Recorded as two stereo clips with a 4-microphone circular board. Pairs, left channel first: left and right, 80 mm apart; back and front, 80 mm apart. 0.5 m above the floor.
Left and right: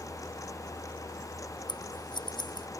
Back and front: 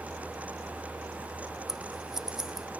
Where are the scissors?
85° left.